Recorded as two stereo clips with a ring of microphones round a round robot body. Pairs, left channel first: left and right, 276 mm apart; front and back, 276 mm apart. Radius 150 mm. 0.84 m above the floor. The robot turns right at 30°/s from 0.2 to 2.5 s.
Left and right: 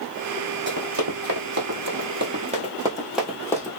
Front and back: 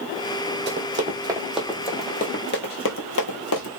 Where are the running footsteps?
130° right, 1.7 m; by 3.7 s 20° left, 1.2 m.